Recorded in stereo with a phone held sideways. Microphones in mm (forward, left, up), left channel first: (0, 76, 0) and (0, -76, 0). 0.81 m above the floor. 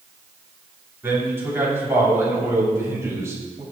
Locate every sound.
1.0 s a man speaking: 15° right (ahead or behind), 6.5 m; by 3.6 s 20° right (ahead or behind), 5.5 m